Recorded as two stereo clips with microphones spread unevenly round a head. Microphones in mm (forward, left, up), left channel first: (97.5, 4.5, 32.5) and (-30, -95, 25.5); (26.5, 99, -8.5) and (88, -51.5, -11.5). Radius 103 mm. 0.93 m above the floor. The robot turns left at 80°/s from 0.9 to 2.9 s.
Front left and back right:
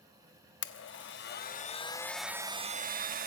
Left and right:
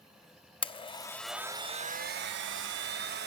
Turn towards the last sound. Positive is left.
turn(degrees=-110)